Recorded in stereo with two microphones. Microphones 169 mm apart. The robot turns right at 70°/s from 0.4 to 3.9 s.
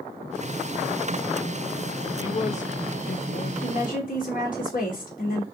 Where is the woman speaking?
35° left (ahead or behind), 2.5 m; by 5.4 s 55° left (ahead or behind), 2.5 m.